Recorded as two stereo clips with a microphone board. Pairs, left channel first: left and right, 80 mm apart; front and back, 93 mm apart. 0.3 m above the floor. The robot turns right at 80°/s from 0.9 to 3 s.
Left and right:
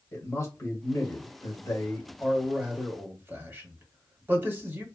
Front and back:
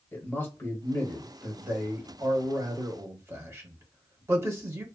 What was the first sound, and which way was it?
A man speaking, 55° left.